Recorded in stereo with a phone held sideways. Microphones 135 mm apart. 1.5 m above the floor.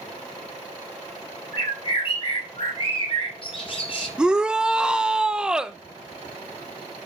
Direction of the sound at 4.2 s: 5° right (ahead or behind).